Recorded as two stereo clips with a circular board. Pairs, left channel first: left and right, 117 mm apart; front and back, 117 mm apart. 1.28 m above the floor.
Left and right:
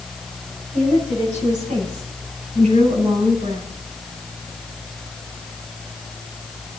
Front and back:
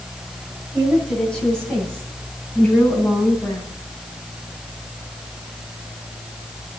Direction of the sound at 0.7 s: 85° right.